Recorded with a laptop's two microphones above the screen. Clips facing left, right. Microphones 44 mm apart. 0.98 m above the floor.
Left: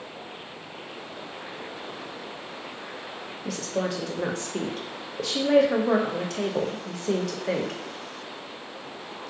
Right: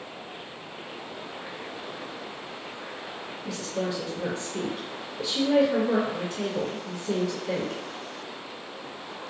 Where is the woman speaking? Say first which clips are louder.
Left 2 dB; 70° left (ahead or behind), 0.5 m.